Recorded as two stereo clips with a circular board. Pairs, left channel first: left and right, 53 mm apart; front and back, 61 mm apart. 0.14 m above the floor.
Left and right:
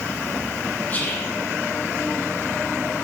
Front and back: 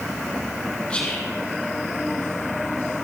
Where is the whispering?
60° left, 1.6 m.